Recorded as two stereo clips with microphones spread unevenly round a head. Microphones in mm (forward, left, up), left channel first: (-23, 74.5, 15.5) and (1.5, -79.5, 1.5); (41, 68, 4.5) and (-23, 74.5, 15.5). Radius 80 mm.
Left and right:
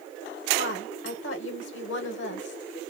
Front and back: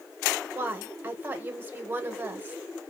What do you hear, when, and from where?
0.6 s a woman speaking: 110° left, 1.2 m